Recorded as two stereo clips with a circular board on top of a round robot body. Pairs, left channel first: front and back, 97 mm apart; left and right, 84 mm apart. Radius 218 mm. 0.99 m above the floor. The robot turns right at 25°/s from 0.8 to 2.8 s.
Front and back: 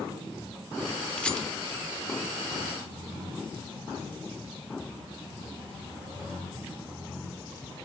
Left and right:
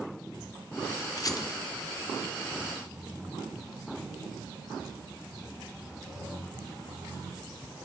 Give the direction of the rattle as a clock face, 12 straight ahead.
10 o'clock.